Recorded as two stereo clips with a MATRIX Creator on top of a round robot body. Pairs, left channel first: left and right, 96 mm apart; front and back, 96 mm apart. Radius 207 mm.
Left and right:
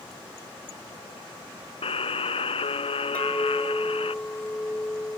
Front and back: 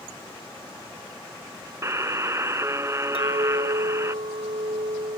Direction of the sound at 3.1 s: 165° left.